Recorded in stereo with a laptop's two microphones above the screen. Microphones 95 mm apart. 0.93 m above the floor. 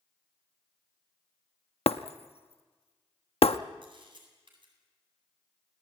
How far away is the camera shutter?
About 8.5 m.